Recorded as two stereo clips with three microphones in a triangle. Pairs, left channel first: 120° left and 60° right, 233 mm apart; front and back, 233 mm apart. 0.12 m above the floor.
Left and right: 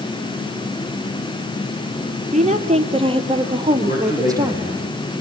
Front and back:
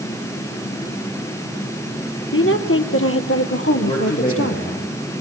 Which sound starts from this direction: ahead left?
A man speaking, at 3.8 s.